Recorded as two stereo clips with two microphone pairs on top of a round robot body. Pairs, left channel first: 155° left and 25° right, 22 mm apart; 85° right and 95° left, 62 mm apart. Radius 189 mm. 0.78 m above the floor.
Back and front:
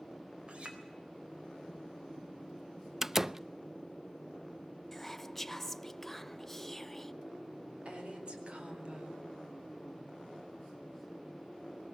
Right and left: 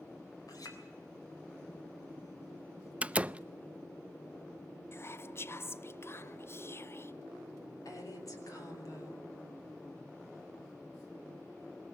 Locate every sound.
0.5 s a clink: 65° right, 3.5 m
3.0 s a door slam: 35° left, 0.5 m
4.9 s whispering: 125° right, 0.8 m
7.8 s a woman speaking: 60° right, 4 m